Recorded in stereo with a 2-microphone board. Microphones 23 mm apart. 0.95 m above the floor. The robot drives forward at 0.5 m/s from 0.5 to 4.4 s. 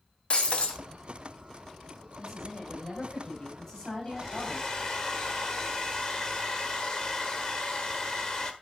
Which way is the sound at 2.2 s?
35° left (ahead or behind).